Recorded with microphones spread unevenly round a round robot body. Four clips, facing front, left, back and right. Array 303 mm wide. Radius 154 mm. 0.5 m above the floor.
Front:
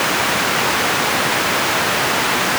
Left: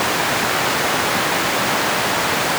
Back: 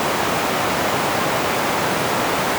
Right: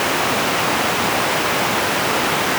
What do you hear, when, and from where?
Only background noise.